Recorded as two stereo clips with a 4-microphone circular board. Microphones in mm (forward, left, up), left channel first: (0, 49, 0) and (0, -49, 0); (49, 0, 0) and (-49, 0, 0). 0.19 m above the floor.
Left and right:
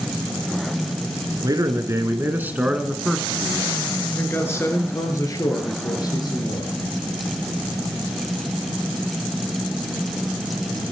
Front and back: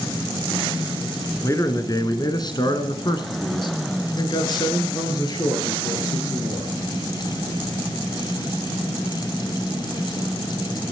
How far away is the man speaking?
About 1.9 m.